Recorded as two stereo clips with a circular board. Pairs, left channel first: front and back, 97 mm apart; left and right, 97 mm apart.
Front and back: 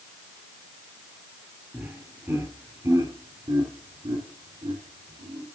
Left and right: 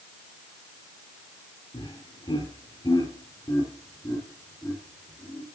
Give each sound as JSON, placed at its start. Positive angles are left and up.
{"t": 1.7, "sound": "laughter", "azimuth_deg": 105, "distance_m": 3.0}